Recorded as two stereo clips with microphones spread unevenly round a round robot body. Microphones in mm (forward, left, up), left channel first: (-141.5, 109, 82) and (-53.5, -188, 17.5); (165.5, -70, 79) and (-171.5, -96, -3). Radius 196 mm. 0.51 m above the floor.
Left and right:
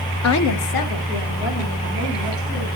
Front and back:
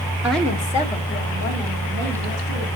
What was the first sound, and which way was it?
A woman speaking, 120° left.